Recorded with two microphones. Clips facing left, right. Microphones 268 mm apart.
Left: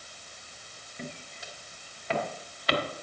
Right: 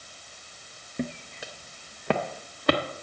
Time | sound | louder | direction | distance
1.0 | footsteps | right 10 dB | 70° right (ahead or behind) | 0.7 m